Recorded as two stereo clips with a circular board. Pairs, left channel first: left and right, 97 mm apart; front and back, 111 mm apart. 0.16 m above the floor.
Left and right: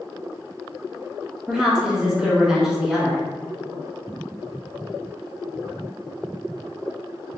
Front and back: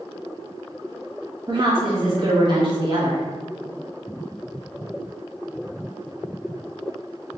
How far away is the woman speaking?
About 1.4 m.